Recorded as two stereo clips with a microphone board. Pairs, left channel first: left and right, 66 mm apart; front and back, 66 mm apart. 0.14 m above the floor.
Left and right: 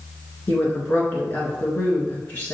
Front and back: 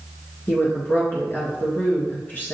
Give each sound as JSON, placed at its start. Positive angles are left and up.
{"t": 0.5, "sound": "a woman speaking", "azimuth_deg": 40, "distance_m": 1.5}